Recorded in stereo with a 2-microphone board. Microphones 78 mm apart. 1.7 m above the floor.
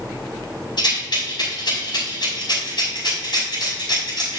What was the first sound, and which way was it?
A rattle, 70° left (ahead or behind).